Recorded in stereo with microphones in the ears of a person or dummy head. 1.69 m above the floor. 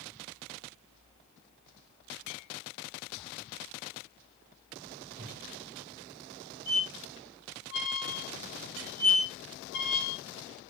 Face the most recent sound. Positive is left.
turn(degrees=55)  # may be behind; listen again after turning